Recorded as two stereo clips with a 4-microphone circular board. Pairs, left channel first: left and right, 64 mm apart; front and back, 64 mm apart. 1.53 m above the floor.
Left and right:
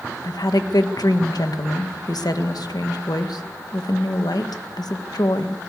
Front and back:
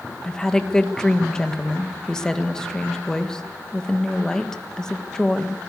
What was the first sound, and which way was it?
A woman speaking, 80° left.